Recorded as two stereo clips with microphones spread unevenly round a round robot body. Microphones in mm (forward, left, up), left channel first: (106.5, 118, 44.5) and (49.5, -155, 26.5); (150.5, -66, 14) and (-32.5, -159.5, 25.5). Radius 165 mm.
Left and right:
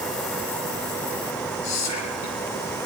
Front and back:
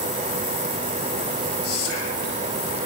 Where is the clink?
No clink in this recording.